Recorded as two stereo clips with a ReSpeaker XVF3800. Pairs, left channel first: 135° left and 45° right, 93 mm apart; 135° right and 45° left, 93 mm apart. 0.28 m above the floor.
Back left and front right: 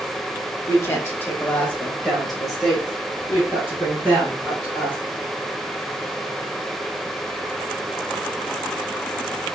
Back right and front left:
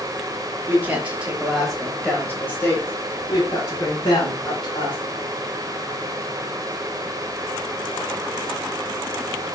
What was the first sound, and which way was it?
A woman speaking, 95° left.